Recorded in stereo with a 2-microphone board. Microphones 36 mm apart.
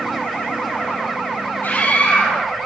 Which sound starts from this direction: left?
A scream, at 1.6 s.